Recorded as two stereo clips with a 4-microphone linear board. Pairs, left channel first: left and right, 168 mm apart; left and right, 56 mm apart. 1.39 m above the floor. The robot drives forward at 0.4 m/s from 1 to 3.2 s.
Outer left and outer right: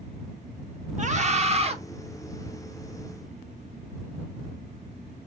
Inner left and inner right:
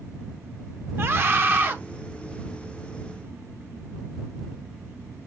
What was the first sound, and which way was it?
A scream, 45° right (ahead or behind).